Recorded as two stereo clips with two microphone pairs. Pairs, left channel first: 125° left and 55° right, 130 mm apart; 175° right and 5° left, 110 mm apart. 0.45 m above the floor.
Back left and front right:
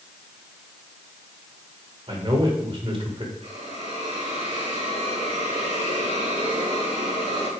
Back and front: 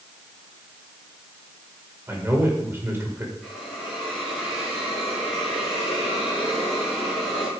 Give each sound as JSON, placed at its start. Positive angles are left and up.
{"t": 2.1, "sound": "a man speaking", "azimuth_deg": -50, "distance_m": 1.9}
{"t": 3.4, "sound": "a hiss", "azimuth_deg": -80, "distance_m": 4.0}